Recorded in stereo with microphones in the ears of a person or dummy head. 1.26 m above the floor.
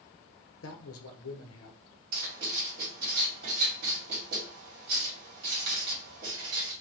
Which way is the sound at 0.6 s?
70° left (ahead or behind).